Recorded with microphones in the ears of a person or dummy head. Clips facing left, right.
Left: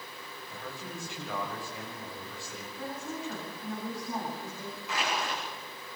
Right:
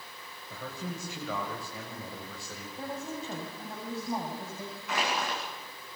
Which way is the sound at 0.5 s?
70° right (ahead or behind).